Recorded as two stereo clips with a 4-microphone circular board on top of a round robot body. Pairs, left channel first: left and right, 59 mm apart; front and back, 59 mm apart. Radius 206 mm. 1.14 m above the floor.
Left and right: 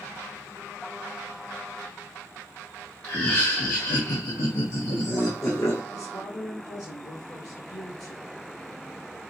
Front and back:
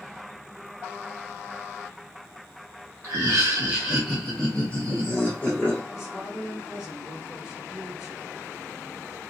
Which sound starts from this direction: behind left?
Laughter, at 3.0 s.